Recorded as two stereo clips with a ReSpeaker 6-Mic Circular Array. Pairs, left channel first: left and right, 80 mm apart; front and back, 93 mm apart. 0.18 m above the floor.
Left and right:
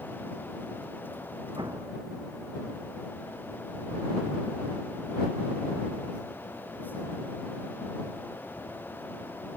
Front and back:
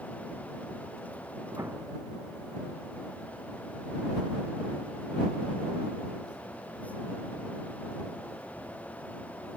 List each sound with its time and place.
1.6 s an explosion: 120° right